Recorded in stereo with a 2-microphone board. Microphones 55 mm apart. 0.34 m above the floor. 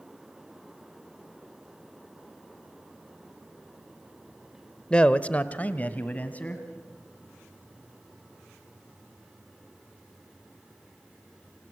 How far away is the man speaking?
About 0.9 m.